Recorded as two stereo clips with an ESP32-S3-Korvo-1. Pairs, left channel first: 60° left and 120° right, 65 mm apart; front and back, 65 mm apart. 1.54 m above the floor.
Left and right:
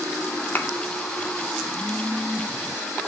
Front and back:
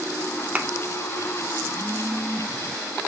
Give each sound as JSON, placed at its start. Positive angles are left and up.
{"t": 0.6, "sound": "a thud", "azimuth_deg": 115, "distance_m": 1.9}